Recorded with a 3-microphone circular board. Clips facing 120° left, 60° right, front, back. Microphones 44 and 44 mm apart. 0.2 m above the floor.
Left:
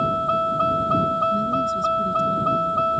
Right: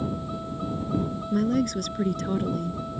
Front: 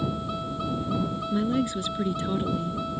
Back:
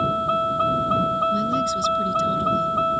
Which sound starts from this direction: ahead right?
A woman speaking, at 1.3 s.